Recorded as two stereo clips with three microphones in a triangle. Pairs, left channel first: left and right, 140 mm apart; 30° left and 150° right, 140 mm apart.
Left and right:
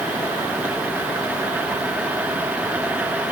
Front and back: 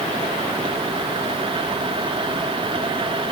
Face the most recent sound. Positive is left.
No sound to turn to.